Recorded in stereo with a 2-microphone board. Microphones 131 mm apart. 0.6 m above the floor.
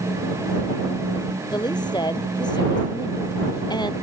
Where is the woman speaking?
35° left (ahead or behind).